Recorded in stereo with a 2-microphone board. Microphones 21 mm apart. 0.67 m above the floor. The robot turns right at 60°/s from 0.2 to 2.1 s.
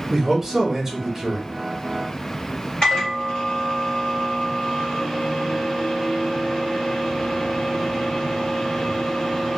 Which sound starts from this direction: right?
A man speaking, at 0.1 s.